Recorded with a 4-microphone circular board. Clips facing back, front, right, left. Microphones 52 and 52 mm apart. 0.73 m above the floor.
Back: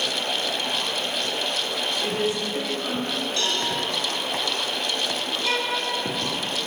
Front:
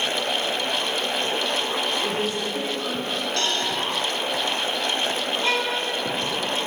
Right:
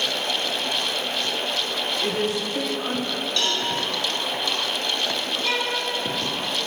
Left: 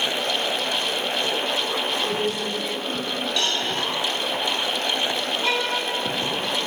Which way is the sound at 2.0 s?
75° right.